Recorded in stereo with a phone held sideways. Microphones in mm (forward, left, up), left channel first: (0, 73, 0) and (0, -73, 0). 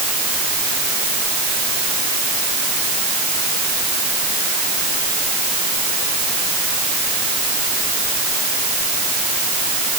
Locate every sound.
Only background noise.